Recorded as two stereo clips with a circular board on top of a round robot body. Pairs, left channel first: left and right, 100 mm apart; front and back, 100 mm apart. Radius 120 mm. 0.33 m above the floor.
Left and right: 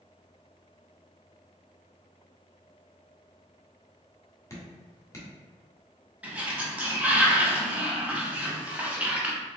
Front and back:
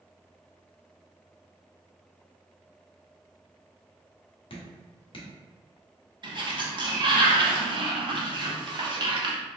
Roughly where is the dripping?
Ahead left.